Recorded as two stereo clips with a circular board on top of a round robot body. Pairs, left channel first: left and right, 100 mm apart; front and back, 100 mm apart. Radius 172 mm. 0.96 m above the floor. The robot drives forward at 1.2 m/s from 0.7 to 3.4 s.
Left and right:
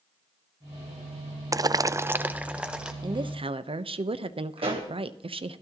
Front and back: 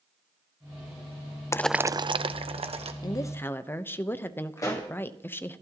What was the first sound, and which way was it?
Boiling, 50° right.